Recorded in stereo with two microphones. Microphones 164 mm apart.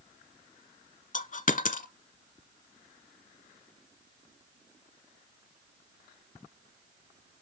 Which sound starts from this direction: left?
A dropped coin, at 1.1 s.